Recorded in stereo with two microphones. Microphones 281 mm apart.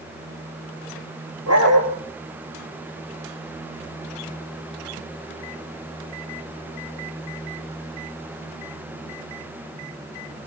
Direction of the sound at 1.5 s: 60° right (ahead or behind).